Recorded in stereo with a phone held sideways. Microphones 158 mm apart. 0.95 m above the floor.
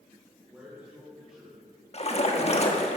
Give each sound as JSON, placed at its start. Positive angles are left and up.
{"t": 0.5, "sound": "a man speaking", "side_deg": -5, "distance_m": 4.0}
{"t": 1.9, "sound": "a splash", "side_deg": 45, "distance_m": 1.4}